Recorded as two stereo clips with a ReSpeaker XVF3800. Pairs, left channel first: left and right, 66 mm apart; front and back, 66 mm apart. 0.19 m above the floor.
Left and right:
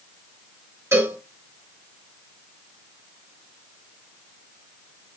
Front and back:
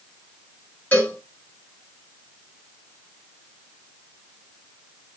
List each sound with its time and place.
0.9 s a cowbell: 60° right, 2.5 m